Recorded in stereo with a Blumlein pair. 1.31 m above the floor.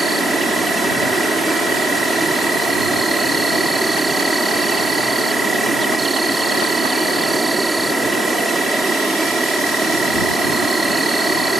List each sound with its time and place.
0.0 s an insect: 10° right